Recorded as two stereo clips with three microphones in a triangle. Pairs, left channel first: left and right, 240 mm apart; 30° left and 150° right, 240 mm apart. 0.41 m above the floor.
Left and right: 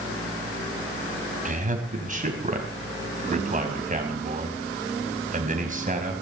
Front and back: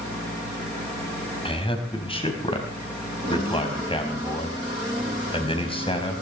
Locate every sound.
1.4 s a man speaking: 35° right, 3.5 m